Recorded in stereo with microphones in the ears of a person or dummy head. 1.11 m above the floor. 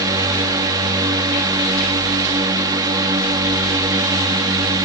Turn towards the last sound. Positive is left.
turn(degrees=-20)  # may be behind; listen again after turning